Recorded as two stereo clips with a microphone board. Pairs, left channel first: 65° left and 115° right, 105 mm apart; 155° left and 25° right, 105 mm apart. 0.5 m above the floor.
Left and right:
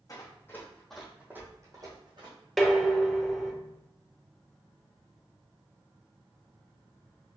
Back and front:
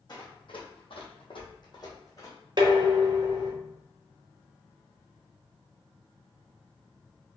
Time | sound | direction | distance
0.1 | running footsteps | 120° left | 1.6 m
2.6 | dishes clattering | 20° right | 0.7 m